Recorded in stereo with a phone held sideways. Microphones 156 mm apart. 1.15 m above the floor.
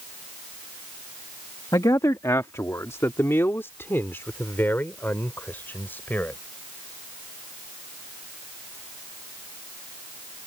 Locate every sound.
1.7 s a man speaking: 25° left (ahead or behind); by 6.4 s 10° left (ahead or behind)